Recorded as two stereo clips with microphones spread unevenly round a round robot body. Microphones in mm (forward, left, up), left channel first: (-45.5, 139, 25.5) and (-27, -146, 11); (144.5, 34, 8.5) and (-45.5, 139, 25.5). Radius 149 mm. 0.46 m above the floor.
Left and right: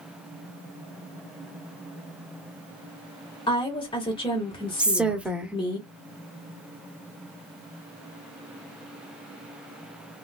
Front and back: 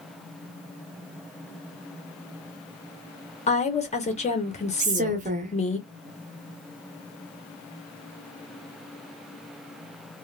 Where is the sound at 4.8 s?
170° right, 0.9 m.